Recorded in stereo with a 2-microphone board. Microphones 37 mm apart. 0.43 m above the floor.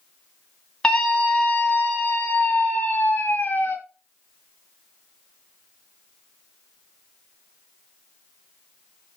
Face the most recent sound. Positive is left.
turn(degrees=45)  # may be behind; listen again after turning